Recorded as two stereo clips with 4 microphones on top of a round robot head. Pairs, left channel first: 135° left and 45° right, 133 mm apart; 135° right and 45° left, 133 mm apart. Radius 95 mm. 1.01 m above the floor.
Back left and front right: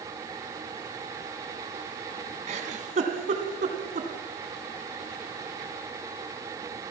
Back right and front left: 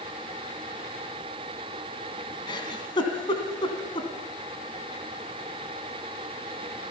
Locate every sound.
2.5 s a giggle: 80° right, 2.5 m